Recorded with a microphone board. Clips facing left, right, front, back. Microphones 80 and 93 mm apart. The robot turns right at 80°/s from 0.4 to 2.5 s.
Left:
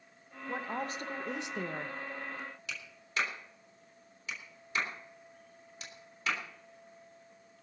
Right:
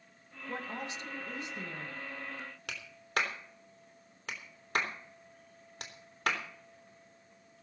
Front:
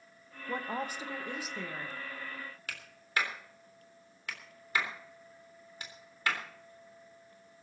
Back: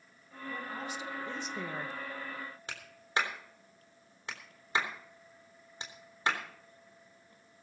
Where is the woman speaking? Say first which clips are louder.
Left 3 dB, front 4 dB; 10° left, 1.5 m; by 1.9 s 125° left, 1.5 m.